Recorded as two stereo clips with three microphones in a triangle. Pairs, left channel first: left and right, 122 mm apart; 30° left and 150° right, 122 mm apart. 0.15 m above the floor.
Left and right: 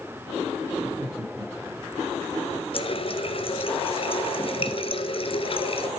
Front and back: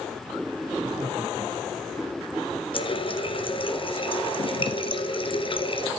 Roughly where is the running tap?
Ahead left.